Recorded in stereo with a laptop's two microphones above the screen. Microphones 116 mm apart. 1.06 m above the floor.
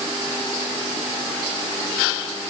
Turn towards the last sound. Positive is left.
No sound to turn to.